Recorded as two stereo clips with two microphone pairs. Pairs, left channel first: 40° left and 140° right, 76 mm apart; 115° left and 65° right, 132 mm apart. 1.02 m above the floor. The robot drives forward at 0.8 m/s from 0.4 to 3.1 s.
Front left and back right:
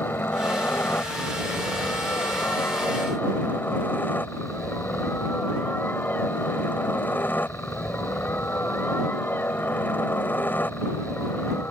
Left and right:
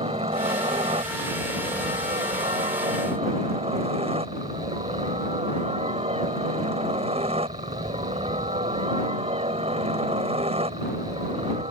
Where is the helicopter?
25° right.